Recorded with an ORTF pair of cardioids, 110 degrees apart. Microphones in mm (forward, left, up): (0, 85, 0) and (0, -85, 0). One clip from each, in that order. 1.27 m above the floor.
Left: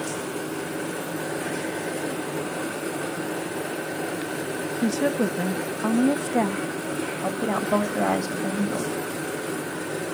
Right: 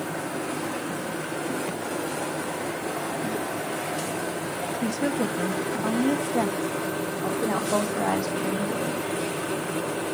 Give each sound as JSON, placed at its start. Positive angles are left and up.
{"t": 4.8, "sound": "a woman speaking", "azimuth_deg": 15, "distance_m": 0.5}
{"t": 7.2, "sound": "a woman speaking", "azimuth_deg": 15, "distance_m": 1.6}